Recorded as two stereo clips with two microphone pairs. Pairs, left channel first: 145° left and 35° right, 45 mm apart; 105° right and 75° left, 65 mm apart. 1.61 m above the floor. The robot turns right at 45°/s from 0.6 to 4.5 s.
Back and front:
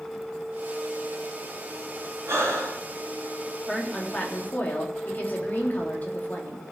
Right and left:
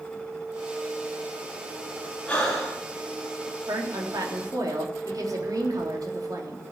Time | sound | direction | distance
2.3 | breathing | 30° right | 4 m
3.7 | a woman speaking | 60° left | 3.5 m